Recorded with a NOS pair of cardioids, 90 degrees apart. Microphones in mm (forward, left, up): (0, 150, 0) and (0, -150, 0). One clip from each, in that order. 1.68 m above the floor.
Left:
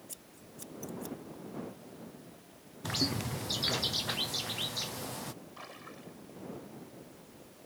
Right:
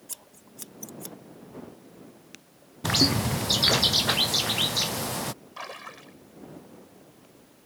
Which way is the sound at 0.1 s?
60° right.